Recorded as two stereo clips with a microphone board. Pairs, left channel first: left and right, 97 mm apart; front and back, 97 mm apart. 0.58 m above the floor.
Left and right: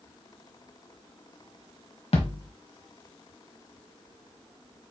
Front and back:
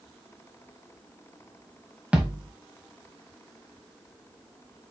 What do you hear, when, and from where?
2.1 s a thud: 100° left, 1.2 m